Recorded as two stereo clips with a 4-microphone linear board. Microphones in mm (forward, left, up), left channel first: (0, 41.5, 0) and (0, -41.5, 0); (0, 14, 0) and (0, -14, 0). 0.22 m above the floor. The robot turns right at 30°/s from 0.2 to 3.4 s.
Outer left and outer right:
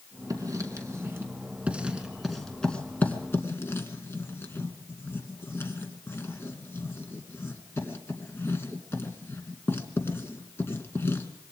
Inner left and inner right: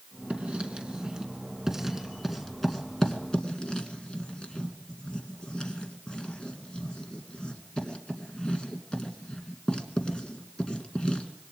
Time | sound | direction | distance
0.3 | writing | 50° right (ahead or behind) | 2.5 m